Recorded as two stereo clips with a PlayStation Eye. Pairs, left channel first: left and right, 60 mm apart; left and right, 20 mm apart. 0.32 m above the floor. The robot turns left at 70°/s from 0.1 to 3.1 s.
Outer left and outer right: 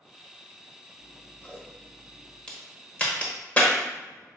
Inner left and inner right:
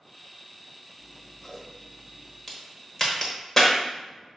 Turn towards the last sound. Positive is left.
turn(degrees=25)  # may be behind; listen again after turning